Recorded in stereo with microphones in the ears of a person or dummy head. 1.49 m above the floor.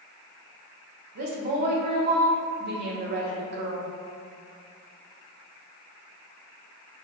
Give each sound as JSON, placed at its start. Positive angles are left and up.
{"t": 1.1, "sound": "a woman speaking", "side_deg": -35, "distance_m": 0.7}